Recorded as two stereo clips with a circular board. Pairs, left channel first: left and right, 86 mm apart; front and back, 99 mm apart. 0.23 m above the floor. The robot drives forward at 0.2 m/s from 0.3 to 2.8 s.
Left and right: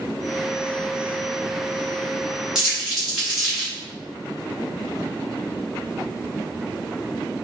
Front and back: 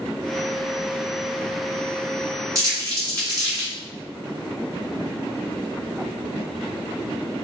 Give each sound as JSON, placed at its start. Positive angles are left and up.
{"t": 2.5, "sound": "crumpling", "azimuth_deg": -170, "distance_m": 1.4}